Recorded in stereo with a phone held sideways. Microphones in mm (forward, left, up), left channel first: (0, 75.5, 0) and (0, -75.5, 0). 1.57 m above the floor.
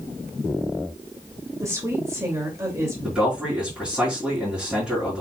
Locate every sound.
1.6 s a woman speaking: 20° right (ahead or behind), 2.5 m
3.0 s a man speaking: 5° right (ahead or behind), 4.5 m